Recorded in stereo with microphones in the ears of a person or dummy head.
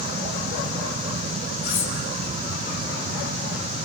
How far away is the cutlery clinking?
About 3 m.